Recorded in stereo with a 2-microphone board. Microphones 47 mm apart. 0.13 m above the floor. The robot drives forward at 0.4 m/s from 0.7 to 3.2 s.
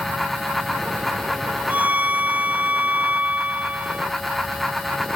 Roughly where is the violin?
Right.